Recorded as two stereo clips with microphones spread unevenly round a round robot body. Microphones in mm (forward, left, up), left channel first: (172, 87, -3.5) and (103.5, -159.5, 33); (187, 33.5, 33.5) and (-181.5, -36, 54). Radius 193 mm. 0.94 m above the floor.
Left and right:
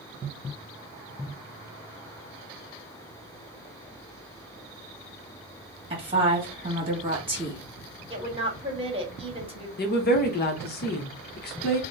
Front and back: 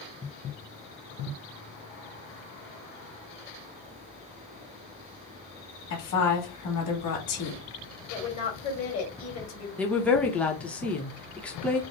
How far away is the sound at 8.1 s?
About 2 m.